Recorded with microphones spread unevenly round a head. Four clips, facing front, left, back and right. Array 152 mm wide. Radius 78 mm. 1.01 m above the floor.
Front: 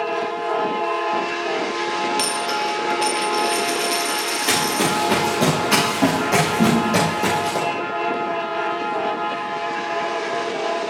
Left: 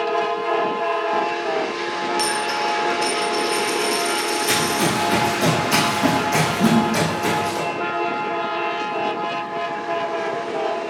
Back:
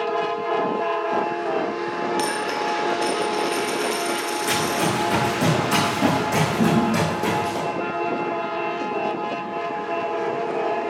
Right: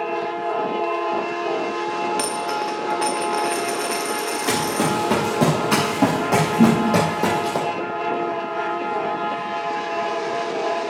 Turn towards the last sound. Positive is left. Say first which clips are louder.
# right 3 dB, front 2 dB
turn(degrees=-90)